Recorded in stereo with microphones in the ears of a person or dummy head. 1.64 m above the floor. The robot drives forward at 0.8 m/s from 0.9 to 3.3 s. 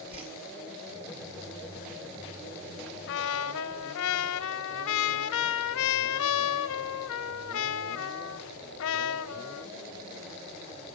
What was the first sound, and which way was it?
A whoosh, 30° right (ahead or behind).